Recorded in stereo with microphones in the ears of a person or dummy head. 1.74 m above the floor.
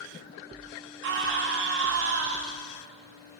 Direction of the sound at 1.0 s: 65° right (ahead or behind).